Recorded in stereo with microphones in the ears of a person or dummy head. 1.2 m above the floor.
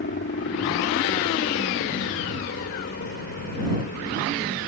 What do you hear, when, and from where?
0.0 s a helicopter: 50° left (ahead or behind)